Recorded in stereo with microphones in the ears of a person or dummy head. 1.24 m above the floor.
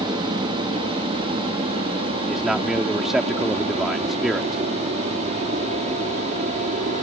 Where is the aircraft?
20° right (ahead or behind); by 7.0 s 35° right (ahead or behind).